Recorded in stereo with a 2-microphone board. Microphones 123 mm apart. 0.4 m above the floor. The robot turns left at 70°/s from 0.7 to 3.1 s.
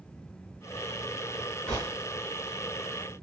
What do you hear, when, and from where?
1.7 s a gunshot: 10° left (ahead or behind), 3 m; by 1.9 s 5° right (ahead or behind), 3 m